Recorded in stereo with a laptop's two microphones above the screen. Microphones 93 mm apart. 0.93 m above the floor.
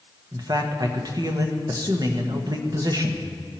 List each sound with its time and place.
0.3 s a man speaking: 45° right (ahead or behind), 1.2 m